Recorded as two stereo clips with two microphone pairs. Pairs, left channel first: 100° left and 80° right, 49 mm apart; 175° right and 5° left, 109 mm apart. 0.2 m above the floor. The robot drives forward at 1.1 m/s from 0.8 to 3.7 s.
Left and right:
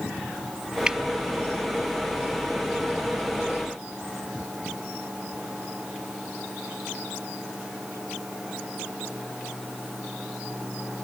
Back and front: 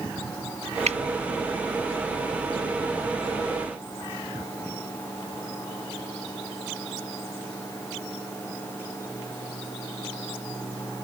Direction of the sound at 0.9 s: 5° right.